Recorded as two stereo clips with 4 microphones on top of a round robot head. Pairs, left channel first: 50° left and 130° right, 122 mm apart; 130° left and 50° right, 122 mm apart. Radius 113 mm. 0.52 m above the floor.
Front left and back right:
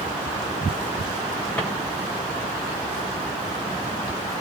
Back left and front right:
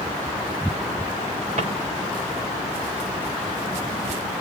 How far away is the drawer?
About 4 m.